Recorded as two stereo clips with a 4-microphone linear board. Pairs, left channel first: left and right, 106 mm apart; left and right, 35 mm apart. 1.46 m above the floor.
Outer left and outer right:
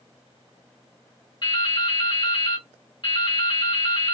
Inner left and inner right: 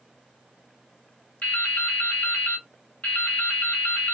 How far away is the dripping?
About 1.5 m.